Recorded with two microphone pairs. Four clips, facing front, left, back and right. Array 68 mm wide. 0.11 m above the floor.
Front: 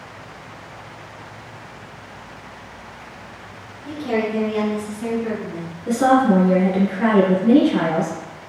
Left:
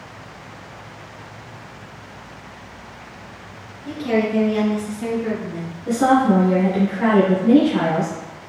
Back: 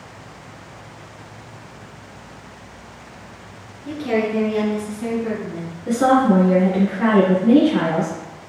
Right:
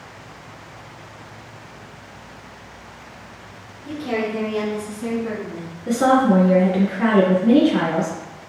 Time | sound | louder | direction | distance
3.9 | a woman speaking | left 4 dB, back 1 dB | 165° left | 1.5 m
5.9 | a woman speaking | even, even | 95° right | 1.2 m